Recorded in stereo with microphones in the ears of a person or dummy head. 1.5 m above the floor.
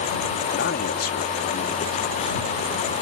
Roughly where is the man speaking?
Left.